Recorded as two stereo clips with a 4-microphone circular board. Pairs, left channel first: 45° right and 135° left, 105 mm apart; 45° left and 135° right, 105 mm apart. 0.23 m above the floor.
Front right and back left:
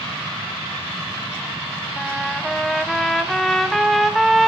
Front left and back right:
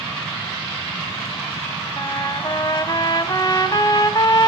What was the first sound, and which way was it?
A trumpet, 45° left.